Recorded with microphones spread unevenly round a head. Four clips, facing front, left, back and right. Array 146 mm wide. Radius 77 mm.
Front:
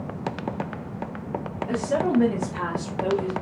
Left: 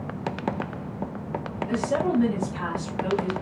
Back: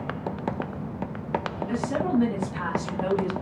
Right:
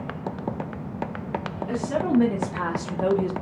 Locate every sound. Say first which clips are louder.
1.7 s a woman speaking: right 1 dB, front 4 dB; 45° right, 1.6 m; by 3.3 s 115° right, 0.9 m